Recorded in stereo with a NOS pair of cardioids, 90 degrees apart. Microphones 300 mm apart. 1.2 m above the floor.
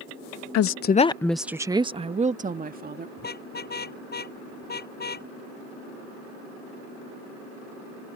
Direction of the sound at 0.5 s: 60° left.